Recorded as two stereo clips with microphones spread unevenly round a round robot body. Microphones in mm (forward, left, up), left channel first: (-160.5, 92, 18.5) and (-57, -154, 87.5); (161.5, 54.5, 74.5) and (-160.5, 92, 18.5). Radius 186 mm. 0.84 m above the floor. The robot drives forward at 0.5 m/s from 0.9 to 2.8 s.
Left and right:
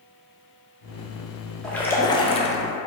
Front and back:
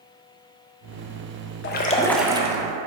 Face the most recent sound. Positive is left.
turn(degrees=145)